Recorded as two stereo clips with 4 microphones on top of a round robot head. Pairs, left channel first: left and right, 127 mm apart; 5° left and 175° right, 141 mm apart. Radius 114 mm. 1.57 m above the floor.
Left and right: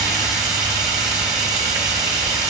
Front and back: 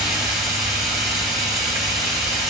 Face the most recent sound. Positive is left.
turn(degrees=-125)